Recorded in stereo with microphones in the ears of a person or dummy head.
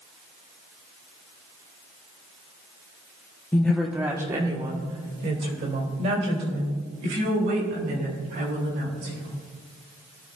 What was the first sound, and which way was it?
A woman speaking, 15° left (ahead or behind).